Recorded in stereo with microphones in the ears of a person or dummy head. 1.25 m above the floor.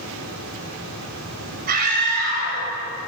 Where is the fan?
80° right, 3.5 m.